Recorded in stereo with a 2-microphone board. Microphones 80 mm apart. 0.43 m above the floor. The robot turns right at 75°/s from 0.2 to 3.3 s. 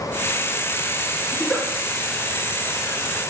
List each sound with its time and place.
1.3 s a giggle: 10° left (ahead or behind), 1.8 m; by 1.7 s 15° right (ahead or behind), 1.8 m